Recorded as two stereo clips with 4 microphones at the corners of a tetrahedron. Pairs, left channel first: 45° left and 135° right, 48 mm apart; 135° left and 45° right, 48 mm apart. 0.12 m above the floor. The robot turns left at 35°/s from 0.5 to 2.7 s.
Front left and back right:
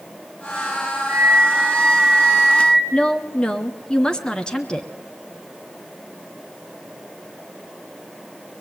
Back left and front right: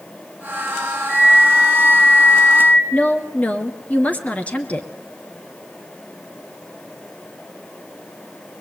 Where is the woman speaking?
105° left, 2 m.